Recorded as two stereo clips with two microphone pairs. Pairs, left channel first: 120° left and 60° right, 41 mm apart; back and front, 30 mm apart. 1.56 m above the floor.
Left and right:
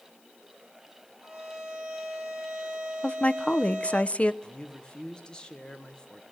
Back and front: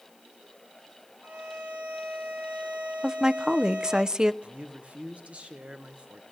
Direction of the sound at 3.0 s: 65° left.